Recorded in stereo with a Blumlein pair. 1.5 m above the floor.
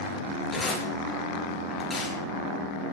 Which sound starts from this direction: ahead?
Tearing paper, at 0.5 s.